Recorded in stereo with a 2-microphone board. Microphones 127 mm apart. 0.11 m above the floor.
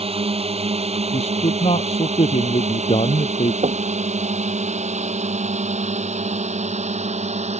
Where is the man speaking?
55° left (ahead or behind).